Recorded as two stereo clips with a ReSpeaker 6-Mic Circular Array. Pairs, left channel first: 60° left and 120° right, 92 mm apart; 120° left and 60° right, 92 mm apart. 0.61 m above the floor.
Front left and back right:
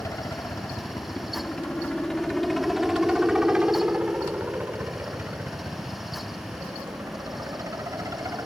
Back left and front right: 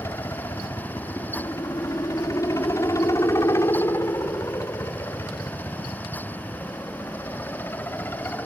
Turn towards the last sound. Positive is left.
turn(degrees=-170)